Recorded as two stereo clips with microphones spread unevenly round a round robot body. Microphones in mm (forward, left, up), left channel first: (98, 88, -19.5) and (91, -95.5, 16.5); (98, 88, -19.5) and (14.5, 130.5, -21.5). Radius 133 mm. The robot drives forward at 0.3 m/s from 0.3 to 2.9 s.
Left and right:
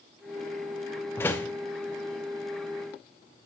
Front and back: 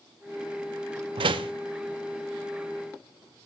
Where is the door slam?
160° left, 0.6 m; by 1.5 s 165° left, 0.7 m.